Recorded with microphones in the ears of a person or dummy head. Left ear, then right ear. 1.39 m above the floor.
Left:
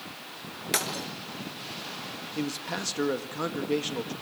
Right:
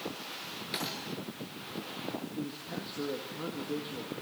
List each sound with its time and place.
0.7 s breaking glass: 45° left (ahead or behind), 5 m
2.4 s a man speaking: 70° left (ahead or behind), 1.8 m